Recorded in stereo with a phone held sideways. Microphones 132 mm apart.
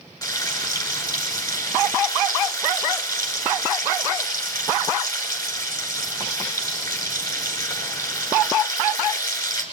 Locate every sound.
0.2 s frying: 30° left (ahead or behind), 5 m